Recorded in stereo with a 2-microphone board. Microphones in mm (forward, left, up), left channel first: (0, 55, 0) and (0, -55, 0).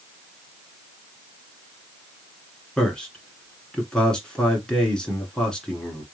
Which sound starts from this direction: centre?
A man speaking, at 2.8 s.